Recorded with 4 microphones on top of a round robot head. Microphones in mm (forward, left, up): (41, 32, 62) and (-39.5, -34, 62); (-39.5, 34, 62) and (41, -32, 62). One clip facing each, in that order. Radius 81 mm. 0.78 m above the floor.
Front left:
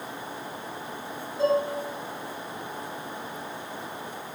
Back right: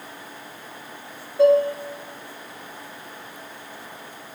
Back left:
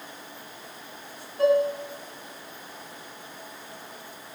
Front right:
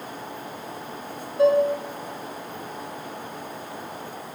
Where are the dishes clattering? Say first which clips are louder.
Back right 8 dB, front right 3 dB; 110° right, 1.7 m.